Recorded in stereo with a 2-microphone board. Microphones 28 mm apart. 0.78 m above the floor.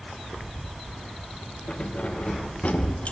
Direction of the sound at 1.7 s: 40° left (ahead or behind).